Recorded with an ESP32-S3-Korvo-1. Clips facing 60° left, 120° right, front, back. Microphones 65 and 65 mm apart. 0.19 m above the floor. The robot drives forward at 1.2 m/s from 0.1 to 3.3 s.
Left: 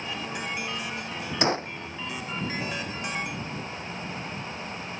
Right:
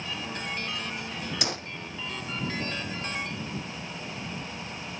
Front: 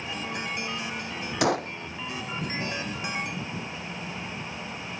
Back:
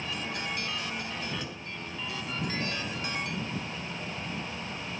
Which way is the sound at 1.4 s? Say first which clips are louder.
Left 8 dB, front 15 dB; 5° left.